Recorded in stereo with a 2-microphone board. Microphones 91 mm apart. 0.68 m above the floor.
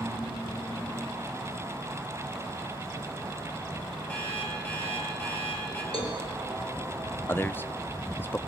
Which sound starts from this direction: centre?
An alarm clock, at 4.1 s.